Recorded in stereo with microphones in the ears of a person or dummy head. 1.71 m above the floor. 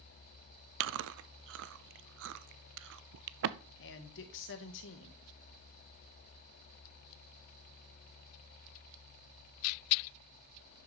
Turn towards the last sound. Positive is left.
turn(degrees=70)  # may be behind; listen again after turning